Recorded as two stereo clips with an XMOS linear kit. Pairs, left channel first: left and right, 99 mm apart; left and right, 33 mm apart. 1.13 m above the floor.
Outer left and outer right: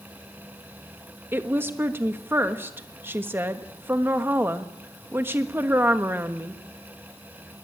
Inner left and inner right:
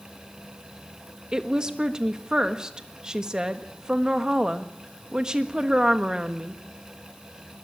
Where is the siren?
I don't hear a siren.